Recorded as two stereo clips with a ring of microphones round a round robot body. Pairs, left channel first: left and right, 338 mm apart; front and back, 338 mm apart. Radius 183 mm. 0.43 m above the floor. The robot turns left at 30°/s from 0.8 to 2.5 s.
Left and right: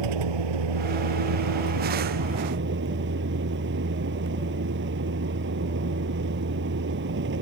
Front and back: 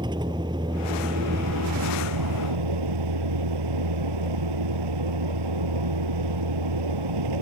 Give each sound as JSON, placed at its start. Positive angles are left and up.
{"t": 0.0, "sound": "a vehicle", "azimuth_deg": -100}